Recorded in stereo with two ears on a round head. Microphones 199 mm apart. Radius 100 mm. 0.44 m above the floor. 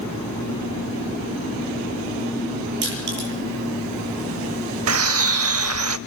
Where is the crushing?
55° right (ahead or behind), 9 m.